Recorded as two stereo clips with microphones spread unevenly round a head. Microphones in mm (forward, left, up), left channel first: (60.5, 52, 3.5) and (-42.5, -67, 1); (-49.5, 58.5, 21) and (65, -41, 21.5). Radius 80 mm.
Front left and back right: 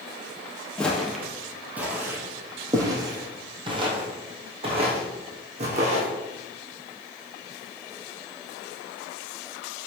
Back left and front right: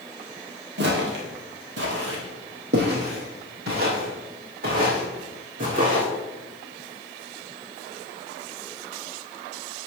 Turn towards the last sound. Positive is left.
turn(degrees=-85)